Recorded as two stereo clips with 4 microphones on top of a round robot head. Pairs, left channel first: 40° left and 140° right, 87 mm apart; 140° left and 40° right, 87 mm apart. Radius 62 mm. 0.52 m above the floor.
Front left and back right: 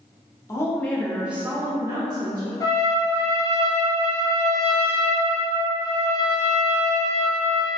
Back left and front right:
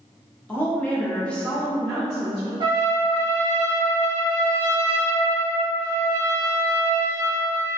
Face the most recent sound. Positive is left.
turn(degrees=-10)